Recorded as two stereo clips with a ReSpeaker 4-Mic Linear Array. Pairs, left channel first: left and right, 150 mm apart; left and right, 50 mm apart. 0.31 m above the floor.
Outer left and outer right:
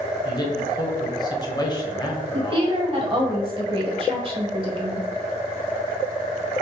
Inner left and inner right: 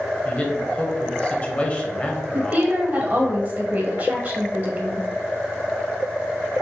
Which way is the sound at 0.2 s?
30° left (ahead or behind).